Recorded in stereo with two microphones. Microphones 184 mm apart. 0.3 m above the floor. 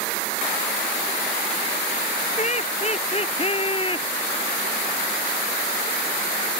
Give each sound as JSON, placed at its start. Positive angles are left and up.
{"t": 2.4, "sound": "laughter", "side_deg": 35}